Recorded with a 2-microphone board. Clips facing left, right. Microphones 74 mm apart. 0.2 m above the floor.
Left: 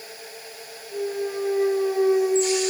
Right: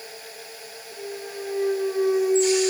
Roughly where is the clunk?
Left.